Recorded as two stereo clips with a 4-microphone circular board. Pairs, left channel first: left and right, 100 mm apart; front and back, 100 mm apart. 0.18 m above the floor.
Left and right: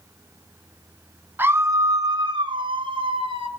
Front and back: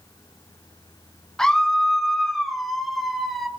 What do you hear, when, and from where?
1.4 s a scream: 75° right, 1.5 m; by 3.5 s 90° right, 3.5 m